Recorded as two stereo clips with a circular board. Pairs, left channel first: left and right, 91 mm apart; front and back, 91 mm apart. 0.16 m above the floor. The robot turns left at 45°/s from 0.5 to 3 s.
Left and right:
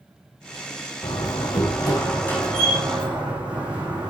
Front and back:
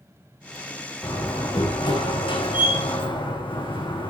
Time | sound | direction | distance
1.0 | a door slam | 75° left | 8 m